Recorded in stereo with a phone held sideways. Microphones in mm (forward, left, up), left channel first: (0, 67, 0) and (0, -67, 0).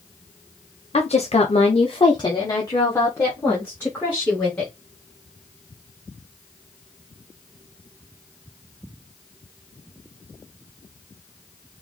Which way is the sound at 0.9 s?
50° left (ahead or behind).